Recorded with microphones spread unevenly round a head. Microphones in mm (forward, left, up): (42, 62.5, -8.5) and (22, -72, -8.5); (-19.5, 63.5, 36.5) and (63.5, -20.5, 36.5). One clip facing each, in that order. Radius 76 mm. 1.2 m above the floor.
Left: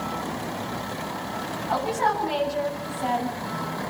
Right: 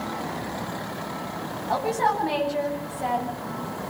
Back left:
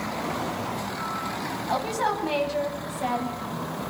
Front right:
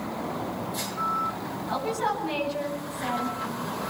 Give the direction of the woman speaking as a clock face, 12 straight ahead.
6 o'clock.